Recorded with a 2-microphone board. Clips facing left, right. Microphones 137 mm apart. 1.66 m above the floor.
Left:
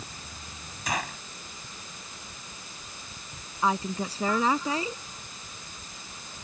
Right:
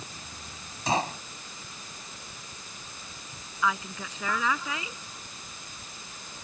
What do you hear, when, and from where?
0.9 s a gunshot: 30° right (ahead or behind)
3.6 s a woman speaking: 35° left (ahead or behind)